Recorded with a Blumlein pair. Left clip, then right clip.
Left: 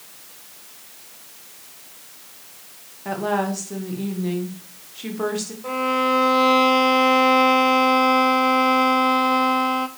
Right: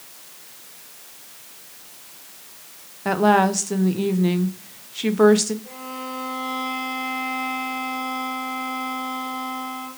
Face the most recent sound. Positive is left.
turn(degrees=45)